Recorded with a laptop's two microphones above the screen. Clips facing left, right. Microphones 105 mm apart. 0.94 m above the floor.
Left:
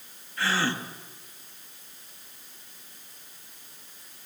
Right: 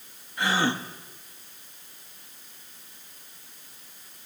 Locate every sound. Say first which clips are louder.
0.4 s a gasp: right 2 dB; 20° right (ahead or behind), 1.5 m